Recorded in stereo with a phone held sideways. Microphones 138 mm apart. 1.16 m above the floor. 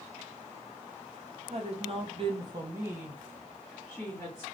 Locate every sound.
1.5 s a woman speaking: 50° right (ahead or behind), 0.8 m; by 4.4 s 15° left (ahead or behind), 1.2 m